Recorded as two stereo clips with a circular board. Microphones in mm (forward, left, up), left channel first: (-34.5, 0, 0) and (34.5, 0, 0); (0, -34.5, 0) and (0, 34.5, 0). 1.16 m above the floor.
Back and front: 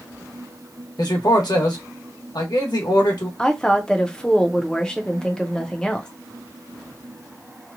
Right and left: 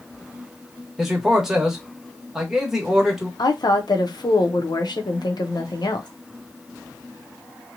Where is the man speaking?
175° left, 1.1 m.